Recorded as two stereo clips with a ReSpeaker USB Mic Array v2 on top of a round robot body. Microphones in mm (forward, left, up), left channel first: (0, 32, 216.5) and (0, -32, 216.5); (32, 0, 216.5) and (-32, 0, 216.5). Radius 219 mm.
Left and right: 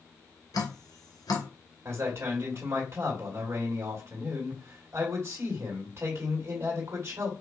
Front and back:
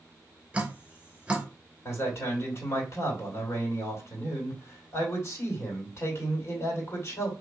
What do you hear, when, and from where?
0.5 s dripping: 105° left, 2.5 m
1.9 s a man speaking: 45° right, 2 m